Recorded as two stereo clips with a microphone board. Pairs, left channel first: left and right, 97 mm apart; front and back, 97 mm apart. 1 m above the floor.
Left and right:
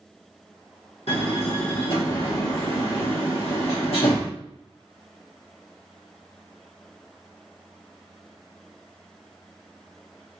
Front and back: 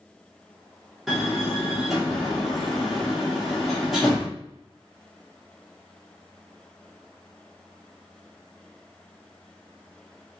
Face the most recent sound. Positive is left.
turn(degrees=90)